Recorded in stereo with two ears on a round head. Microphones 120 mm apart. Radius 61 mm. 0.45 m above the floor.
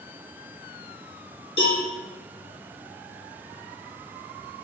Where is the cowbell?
45° left (ahead or behind), 1.7 m.